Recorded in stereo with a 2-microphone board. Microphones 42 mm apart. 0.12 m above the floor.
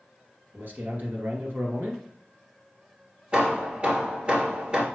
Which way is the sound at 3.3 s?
30° right (ahead or behind).